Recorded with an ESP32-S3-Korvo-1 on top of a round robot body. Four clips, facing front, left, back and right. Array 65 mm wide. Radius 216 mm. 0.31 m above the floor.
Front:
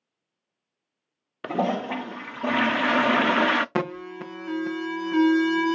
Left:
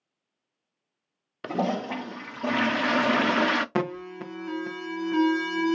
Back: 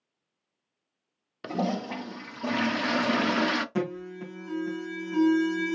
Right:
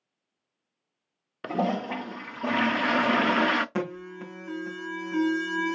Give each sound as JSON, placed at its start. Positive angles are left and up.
{"t": 1.4, "sound": "a toilet flushing", "azimuth_deg": -5, "distance_m": 0.5}
{"t": 3.8, "sound": "an alarm", "azimuth_deg": 20, "distance_m": 0.8}